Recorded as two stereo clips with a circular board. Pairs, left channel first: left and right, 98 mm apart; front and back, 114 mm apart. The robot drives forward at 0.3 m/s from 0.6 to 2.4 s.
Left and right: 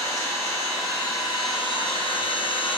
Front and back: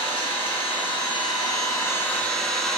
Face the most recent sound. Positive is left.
turn(degrees=85)